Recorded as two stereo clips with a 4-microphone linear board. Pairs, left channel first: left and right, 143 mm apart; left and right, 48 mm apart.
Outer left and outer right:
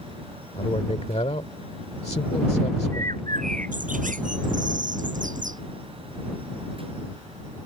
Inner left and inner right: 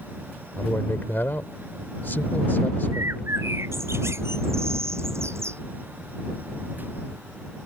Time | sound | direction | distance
0.6 | a man speaking | 50° left (ahead or behind) | ?
2.9 | a bird | 75° right (ahead or behind) | ?